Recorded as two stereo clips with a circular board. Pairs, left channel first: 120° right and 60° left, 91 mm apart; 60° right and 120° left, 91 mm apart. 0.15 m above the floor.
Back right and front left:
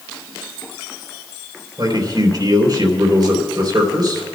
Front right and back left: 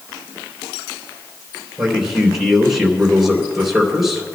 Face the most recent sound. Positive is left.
turn(degrees=30)